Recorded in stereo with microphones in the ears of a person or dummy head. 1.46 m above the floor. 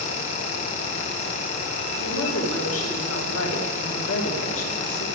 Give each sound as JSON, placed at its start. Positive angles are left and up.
{"t": 2.0, "sound": "a woman speaking", "side_deg": 85, "distance_m": 2.0}